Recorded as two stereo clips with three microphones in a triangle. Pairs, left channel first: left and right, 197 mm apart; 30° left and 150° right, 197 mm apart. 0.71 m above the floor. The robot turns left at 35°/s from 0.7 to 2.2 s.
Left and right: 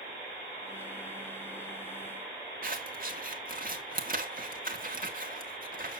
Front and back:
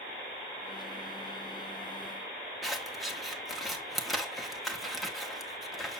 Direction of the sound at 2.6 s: 60° right.